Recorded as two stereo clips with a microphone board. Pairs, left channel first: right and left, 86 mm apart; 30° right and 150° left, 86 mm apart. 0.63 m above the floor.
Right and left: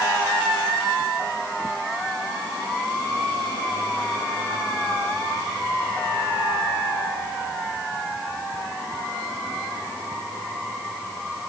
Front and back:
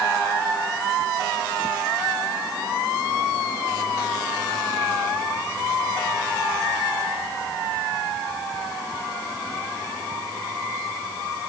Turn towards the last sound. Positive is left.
No sound to turn to.